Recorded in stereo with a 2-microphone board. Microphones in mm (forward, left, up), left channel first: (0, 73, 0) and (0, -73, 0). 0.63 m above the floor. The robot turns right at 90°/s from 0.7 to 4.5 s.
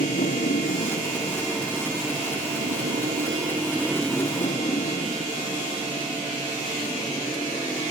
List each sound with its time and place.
0.0 s a motorcycle: 75° left (ahead or behind); by 7.9 s 25° left (ahead or behind)